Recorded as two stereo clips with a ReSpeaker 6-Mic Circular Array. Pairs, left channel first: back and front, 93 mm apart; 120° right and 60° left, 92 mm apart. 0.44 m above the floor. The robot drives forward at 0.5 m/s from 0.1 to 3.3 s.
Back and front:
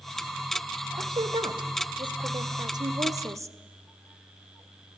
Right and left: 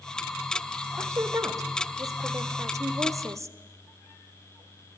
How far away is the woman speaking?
About 2 m.